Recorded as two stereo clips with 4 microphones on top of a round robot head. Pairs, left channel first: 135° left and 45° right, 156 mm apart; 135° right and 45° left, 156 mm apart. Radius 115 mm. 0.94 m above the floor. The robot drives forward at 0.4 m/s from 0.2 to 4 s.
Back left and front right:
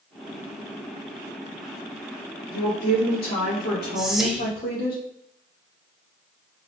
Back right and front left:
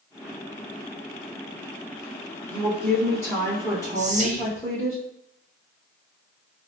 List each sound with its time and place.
2.5 s a woman speaking: 145° left, 2.5 m; by 5.0 s 155° left, 3 m
4.0 s whispering: 40° left, 1.2 m